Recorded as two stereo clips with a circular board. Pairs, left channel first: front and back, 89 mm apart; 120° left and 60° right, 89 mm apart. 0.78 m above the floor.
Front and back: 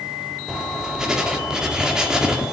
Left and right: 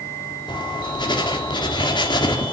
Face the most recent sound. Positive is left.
turn(degrees=100)